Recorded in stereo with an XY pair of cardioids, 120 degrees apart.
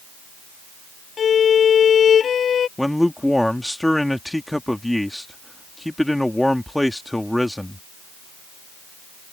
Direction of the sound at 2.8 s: 5° left.